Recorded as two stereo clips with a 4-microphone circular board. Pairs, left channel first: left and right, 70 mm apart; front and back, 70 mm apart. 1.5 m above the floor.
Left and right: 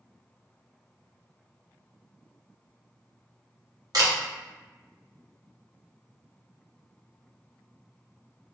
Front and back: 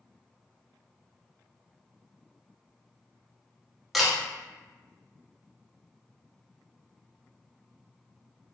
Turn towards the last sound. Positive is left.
turn(degrees=-95)